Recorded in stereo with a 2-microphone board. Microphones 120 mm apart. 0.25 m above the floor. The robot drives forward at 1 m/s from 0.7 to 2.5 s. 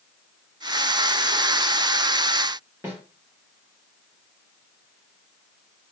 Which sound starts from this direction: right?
A snare drum, at 2.8 s.